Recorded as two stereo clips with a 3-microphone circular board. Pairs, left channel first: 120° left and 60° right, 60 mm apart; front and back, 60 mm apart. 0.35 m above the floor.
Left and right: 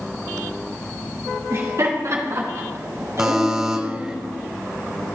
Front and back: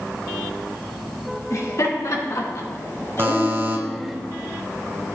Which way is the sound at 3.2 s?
135° right.